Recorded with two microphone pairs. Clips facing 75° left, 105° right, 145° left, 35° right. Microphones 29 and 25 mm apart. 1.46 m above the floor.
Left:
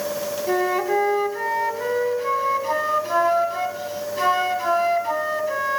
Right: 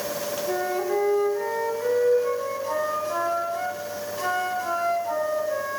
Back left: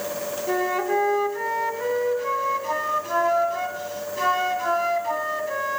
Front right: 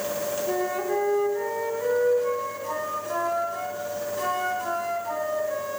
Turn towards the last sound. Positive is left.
turn(degrees=105)